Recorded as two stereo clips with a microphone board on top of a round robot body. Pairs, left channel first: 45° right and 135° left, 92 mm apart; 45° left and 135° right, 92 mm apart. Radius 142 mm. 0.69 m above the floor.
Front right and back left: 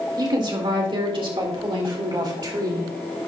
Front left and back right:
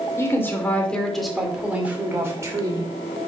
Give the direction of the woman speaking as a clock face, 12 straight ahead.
9 o'clock.